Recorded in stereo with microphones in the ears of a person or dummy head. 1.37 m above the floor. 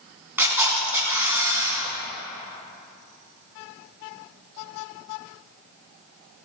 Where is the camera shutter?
10° right (ahead or behind), 4 m.